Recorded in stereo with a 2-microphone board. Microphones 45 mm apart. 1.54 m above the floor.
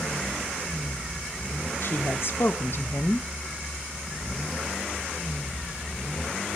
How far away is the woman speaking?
About 0.6 m.